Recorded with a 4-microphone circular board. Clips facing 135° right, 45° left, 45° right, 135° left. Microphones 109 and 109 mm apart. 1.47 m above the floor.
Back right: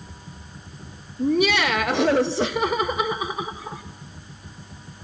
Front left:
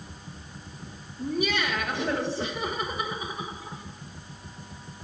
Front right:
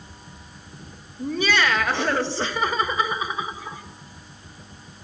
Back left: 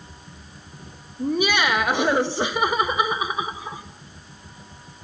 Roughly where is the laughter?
Behind right.